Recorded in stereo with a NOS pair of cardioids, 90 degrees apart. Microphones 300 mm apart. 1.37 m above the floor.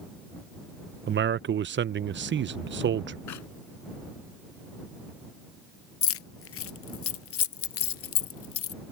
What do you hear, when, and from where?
1.1 s a man speaking: 40° right
3.3 s a clap: 65° left
6.0 s keys jangling: 50° left